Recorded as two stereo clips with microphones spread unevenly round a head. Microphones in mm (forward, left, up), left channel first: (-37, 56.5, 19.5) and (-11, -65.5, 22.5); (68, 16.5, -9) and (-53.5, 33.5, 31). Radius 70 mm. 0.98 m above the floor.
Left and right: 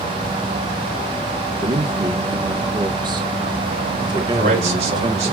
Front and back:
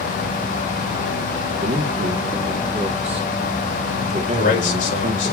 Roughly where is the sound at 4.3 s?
Ahead right.